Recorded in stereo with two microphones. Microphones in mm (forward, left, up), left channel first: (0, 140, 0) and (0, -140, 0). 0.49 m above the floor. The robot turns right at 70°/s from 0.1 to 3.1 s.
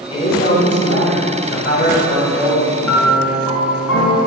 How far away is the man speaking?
About 3.5 m.